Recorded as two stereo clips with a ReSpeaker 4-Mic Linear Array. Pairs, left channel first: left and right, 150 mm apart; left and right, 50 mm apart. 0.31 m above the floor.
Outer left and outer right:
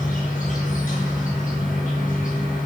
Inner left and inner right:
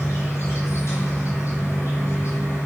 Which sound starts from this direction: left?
An insect, at 0.0 s.